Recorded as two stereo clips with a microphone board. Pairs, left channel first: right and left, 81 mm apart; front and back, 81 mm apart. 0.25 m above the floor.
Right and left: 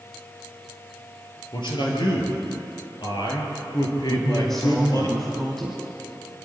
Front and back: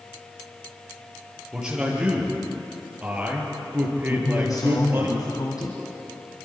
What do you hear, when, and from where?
1.5 s a man speaking: 100° right, 6 m; by 5.1 s 120° right, 5 m
4.1 s a man speaking: 10° right, 2.5 m